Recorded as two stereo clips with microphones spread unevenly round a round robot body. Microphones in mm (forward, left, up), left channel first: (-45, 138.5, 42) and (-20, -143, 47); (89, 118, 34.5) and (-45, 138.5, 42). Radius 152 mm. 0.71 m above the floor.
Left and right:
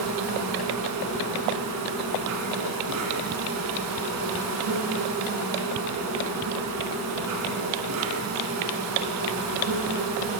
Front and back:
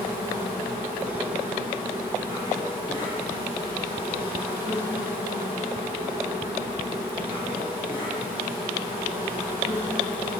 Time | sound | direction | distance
0.0 | an insect | 110° right | 1.3 m